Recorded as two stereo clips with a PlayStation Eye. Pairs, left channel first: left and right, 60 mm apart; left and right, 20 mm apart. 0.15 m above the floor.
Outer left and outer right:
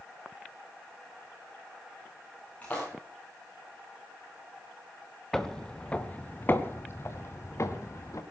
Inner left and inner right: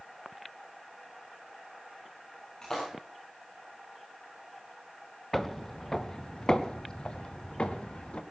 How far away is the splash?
About 8 m.